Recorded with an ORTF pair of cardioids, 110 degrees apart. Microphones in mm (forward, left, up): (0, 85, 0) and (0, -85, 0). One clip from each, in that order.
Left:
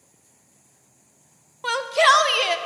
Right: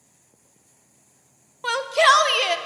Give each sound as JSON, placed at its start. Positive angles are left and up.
{"t": 1.6, "sound": "a shout", "azimuth_deg": -5, "distance_m": 0.6}